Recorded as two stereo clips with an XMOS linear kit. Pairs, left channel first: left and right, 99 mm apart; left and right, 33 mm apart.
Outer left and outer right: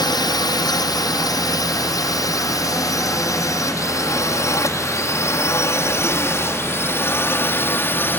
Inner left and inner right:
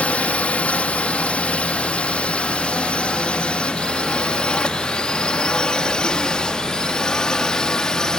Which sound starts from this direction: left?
A drone, at 0.0 s.